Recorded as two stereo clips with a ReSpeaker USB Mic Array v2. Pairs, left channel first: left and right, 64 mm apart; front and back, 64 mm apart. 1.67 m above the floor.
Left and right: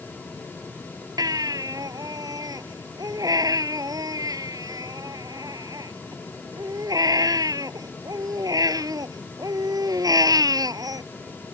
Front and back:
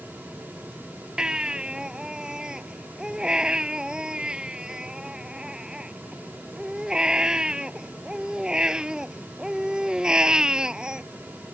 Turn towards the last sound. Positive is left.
turn(degrees=-105)